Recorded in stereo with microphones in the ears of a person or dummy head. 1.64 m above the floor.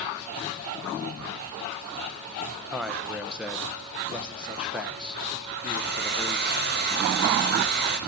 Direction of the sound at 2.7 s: 5° right (ahead or behind).